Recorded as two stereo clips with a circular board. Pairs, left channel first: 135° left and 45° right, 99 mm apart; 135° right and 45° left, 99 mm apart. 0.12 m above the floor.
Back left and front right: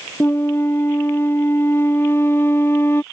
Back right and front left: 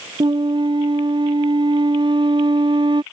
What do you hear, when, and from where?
0.2 s a flute: 70° left